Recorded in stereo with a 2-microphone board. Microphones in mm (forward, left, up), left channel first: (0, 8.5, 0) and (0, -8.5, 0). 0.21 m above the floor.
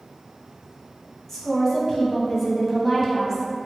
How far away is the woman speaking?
About 1.0 m.